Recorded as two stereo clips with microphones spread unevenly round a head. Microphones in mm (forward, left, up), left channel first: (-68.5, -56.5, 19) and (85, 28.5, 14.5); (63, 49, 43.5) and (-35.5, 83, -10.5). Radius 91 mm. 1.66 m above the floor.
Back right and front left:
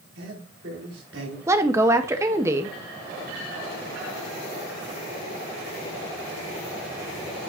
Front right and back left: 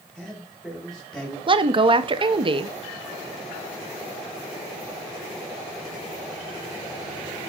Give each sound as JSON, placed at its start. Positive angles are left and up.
{"t": 0.1, "sound": "a man speaking", "azimuth_deg": 60, "distance_m": 4.5}
{"t": 1.5, "sound": "a woman speaking", "azimuth_deg": 105, "distance_m": 0.8}